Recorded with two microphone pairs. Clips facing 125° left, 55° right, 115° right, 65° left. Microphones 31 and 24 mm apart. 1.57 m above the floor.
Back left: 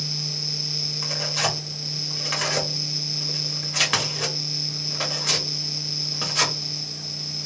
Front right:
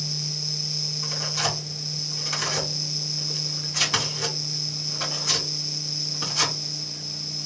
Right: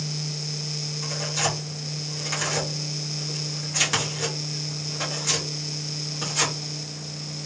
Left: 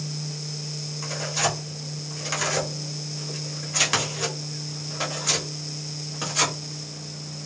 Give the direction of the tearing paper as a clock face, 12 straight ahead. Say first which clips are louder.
Back left 2 dB, left 1 dB; 7 o'clock.